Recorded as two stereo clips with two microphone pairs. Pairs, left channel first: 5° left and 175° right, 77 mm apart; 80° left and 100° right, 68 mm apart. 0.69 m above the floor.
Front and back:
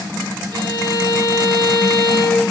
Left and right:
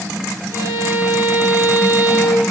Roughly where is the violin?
Behind right.